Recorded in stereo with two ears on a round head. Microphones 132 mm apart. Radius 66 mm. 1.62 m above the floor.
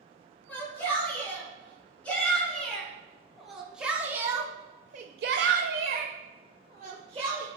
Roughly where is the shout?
Centre.